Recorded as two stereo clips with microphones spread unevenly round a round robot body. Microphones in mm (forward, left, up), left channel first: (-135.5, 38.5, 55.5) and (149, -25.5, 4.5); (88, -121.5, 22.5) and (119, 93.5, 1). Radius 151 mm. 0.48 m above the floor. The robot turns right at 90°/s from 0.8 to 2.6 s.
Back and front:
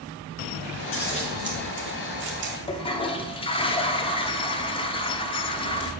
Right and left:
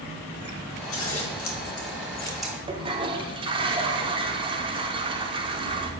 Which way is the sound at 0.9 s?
145° right.